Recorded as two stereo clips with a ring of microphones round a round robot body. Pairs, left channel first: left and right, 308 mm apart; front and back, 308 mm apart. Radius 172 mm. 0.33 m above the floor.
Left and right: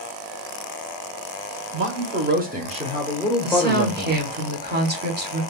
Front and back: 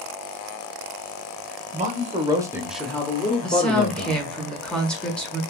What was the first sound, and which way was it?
A man speaking, 120° right.